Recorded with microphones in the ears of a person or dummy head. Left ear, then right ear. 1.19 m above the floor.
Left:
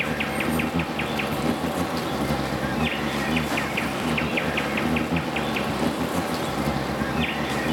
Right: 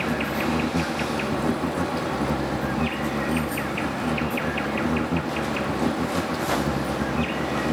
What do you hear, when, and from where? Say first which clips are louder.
0.0 s an insect: even; 15° left (ahead or behind)